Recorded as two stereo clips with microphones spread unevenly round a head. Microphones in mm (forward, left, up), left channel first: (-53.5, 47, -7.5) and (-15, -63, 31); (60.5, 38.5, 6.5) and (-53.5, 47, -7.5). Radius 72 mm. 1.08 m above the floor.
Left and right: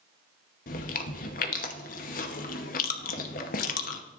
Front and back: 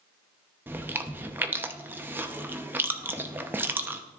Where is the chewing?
100° left, 0.9 m.